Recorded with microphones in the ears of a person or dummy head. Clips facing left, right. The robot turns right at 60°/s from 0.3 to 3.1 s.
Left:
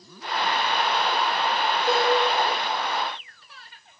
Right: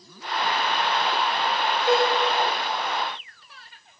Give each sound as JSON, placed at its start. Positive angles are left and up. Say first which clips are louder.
{"t": 1.9, "sound": "a cowbell", "louder": "right 2 dB", "side_deg": 5, "distance_m": 3.5}